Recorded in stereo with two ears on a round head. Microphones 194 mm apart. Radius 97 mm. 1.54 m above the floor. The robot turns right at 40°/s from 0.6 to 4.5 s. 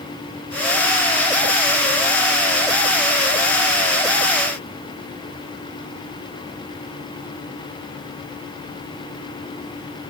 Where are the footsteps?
I don't hear footsteps.